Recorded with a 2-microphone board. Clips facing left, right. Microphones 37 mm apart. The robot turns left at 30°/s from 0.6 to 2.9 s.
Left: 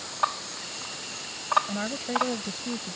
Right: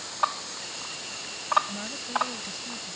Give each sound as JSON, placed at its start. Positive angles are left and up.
{"t": 1.7, "sound": "a woman speaking", "azimuth_deg": 150}